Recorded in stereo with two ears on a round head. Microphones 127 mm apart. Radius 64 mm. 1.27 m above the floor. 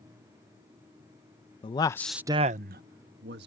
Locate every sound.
1.6 s a man speaking: 35° left (ahead or behind); by 3.5 s 90° right